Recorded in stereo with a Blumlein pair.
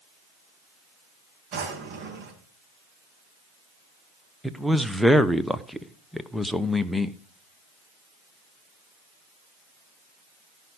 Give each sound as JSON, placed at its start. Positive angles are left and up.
{"t": 1.5, "sound": "a drawer", "azimuth_deg": -40, "distance_m": 4.5}
{"t": 4.4, "sound": "a man speaking", "azimuth_deg": 0, "distance_m": 1.0}